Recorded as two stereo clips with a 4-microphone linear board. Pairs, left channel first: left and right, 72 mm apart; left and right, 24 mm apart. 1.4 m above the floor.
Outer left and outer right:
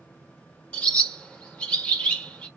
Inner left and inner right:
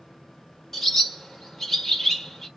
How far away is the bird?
About 1.4 m.